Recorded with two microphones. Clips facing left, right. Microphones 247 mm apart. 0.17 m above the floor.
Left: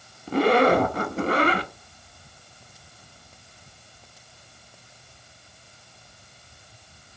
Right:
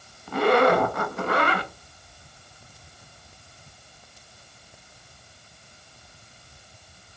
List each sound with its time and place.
0.3 s a zipper: 35° left (ahead or behind), 0.6 m